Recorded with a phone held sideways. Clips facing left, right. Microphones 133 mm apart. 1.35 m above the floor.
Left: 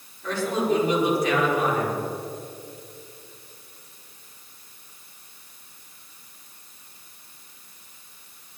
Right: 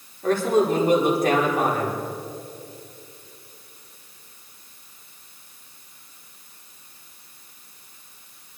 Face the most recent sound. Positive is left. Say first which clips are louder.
# right 5 dB
turn(degrees=-50)  # may be behind; listen again after turning